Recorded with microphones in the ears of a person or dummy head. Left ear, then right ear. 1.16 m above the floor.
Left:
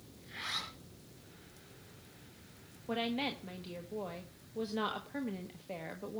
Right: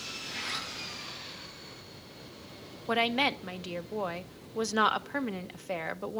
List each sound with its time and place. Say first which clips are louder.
0.2 s a zipper: right 2 dB; centre (ahead or behind), 5 m
2.9 s a woman speaking: right 9 dB; 55° right (ahead or behind), 0.8 m